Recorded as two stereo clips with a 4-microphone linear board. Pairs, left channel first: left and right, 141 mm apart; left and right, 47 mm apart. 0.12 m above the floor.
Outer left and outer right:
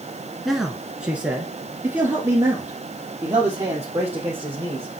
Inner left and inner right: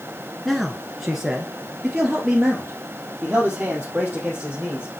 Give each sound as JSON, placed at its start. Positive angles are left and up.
{"t": 0.5, "sound": "a man speaking", "side_deg": 0, "distance_m": 1.1}